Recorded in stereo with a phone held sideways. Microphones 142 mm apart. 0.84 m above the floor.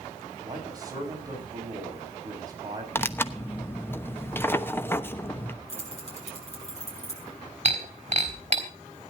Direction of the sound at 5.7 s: 50° left (ahead or behind).